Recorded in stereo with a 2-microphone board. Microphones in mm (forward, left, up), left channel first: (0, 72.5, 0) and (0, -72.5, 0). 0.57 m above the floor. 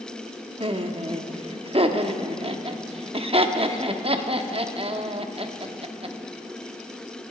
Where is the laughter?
40° right (ahead or behind), 0.7 m.